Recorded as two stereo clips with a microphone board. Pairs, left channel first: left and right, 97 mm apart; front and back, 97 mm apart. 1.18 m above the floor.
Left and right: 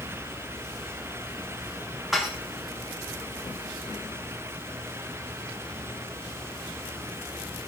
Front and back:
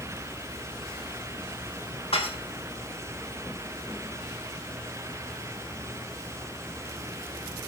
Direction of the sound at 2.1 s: Straight ahead.